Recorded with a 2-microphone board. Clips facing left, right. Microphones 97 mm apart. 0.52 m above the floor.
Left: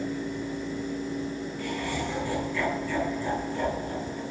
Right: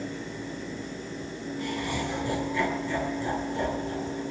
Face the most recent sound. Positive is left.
turn(degrees=-15)  # may be behind; listen again after turning